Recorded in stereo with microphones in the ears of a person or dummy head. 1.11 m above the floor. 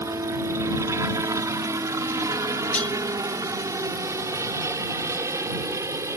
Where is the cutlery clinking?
5° left (ahead or behind).